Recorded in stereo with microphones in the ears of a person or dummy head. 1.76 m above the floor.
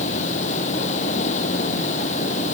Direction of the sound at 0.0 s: 40° left (ahead or behind).